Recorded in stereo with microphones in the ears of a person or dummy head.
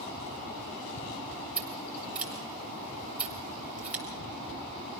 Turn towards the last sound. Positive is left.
turn(degrees=0)  # may be behind; listen again after turning